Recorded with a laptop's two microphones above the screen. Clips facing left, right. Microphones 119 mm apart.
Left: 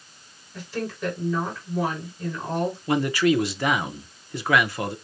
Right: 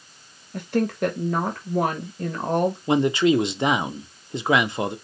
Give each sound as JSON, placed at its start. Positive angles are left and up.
{"t": 0.5, "sound": "a woman speaking", "side_deg": -65, "distance_m": 1.2}
{"t": 2.9, "sound": "a man speaking", "side_deg": -25, "distance_m": 0.6}